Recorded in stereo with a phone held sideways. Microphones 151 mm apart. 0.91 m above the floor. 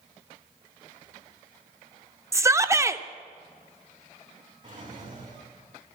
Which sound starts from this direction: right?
A drawer, at 4.6 s.